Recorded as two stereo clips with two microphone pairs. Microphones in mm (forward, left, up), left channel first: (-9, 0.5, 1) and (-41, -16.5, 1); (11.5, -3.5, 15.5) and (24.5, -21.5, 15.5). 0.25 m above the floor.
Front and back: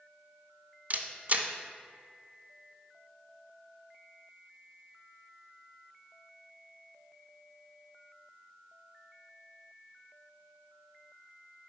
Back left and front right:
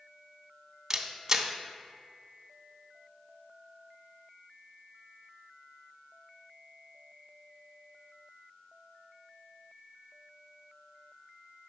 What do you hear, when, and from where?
0.9 s a camera shutter: 120° right, 0.5 m